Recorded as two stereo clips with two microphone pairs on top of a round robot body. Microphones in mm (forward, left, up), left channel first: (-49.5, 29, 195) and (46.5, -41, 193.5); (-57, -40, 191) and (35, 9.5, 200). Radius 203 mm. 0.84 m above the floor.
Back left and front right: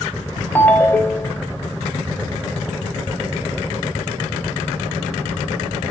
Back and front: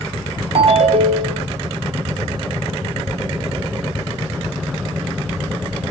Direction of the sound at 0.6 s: 65° left.